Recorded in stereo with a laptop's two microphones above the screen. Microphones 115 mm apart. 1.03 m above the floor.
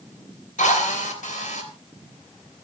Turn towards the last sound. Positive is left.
turn(degrees=85)